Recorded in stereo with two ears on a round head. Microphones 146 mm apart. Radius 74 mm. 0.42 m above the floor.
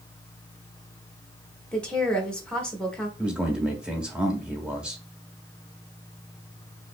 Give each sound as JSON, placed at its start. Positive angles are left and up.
{"t": 1.7, "sound": "a woman speaking", "side_deg": 5, "distance_m": 1.1}
{"t": 3.2, "sound": "a man speaking", "side_deg": -5, "distance_m": 1.1}